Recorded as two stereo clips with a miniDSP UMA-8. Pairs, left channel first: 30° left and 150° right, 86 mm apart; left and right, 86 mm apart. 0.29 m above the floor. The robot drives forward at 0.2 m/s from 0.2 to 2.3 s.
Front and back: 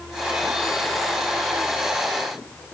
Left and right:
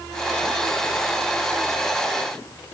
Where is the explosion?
No explosion in this recording.